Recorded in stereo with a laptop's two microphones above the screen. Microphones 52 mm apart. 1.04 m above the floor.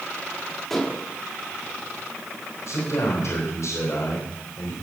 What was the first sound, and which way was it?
Dishes clattering, 5° left (ahead or behind).